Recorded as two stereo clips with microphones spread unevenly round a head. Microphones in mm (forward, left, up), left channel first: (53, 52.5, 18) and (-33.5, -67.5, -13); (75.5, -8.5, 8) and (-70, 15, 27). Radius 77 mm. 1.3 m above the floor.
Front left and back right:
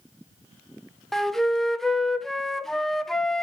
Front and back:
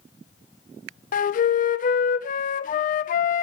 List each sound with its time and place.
1.1 s a flute: 40° right, 0.8 m